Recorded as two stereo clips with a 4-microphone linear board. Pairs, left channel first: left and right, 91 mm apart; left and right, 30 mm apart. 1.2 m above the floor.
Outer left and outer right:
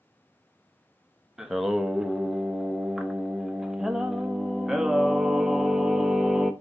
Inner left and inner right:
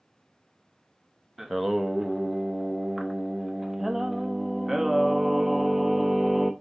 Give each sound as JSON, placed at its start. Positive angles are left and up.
{"t": 1.4, "sound": "singing", "side_deg": -5, "distance_m": 0.6}